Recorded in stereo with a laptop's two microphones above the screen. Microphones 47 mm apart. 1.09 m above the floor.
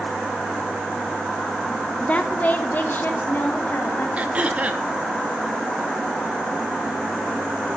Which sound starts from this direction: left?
A woman speaking, at 2.0 s.